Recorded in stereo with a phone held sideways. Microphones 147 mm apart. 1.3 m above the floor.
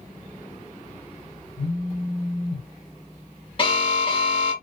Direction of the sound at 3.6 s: 40° left (ahead or behind).